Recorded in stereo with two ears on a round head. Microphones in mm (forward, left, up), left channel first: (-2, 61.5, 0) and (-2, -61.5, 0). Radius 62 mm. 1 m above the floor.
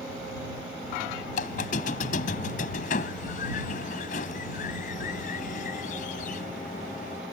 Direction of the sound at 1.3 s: 60° left (ahead or behind).